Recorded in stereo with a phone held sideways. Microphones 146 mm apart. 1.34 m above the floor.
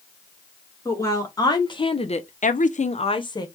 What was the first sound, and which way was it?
A woman speaking, 20° left (ahead or behind).